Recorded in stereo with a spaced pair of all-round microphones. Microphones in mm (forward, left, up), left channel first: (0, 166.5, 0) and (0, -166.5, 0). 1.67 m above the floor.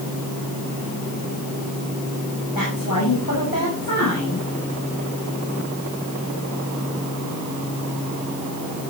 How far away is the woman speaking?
About 8 m.